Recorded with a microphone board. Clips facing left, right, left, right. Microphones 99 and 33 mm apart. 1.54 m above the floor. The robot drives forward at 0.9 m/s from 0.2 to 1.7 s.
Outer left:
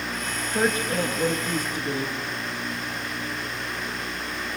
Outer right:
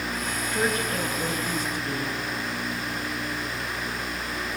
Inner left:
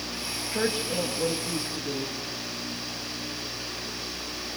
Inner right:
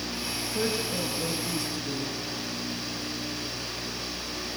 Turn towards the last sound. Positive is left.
turn(degrees=25)  # may be behind; listen again after turning